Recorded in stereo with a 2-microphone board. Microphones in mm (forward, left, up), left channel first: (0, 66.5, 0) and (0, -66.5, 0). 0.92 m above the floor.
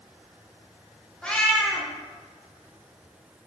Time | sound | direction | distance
1.2 | a cat meowing | 10° left (ahead or behind) | 0.6 m